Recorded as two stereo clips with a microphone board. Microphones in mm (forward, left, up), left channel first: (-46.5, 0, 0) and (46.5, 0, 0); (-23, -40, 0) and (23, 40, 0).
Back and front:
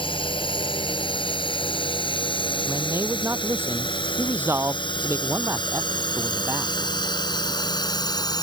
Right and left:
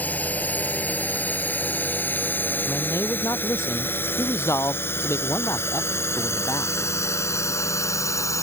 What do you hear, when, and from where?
0.0 s a drone: 170° left; by 8.4 s 160° right
2.7 s a man speaking: 60° right